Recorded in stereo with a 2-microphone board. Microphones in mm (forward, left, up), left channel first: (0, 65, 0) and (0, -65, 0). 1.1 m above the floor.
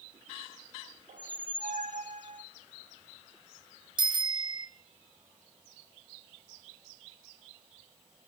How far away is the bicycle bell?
About 4 m.